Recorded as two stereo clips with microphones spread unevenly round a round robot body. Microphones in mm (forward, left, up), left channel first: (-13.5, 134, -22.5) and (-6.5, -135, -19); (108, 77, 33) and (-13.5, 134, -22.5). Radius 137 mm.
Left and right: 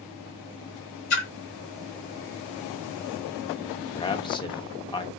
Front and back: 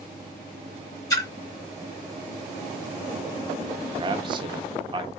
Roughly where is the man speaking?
Behind.